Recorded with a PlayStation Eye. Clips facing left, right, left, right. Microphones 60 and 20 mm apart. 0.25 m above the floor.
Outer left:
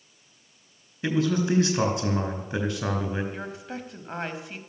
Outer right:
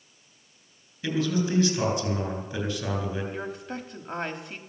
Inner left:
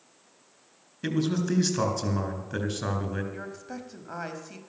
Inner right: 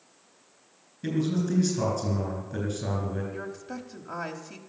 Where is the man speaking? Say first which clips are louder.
Outer left 2 dB, even; 45° left (ahead or behind), 3.5 m.